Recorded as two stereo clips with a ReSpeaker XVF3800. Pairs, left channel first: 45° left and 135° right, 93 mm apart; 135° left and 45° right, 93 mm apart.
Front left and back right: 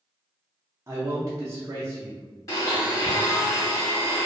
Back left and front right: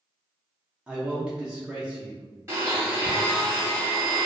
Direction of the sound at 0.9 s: 115° right.